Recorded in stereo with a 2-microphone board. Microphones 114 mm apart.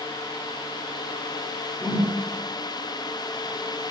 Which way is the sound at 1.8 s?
35° left (ahead or behind).